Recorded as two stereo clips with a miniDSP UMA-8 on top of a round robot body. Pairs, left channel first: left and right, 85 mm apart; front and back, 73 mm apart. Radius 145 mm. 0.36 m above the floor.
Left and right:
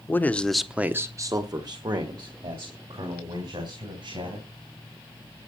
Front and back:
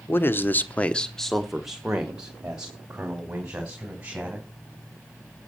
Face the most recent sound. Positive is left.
turn(degrees=-110)